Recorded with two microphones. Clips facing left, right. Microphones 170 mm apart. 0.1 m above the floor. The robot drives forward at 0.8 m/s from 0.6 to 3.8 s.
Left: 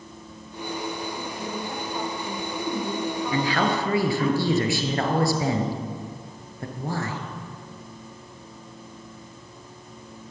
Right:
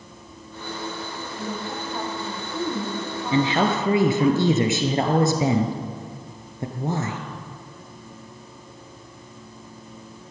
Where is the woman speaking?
15° right (ahead or behind), 6 m; by 4.3 s 20° right (ahead or behind), 4 m.